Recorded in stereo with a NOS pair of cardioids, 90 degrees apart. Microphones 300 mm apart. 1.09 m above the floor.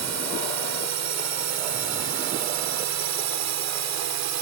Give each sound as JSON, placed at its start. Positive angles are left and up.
{"t": 0.0, "sound": "a drone", "azimuth_deg": -65}